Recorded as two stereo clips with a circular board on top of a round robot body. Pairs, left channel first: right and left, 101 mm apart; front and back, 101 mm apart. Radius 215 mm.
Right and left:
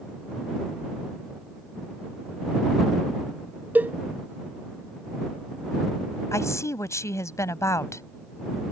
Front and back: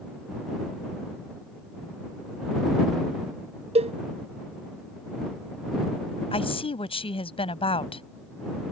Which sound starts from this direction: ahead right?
A woman speaking, at 6.3 s.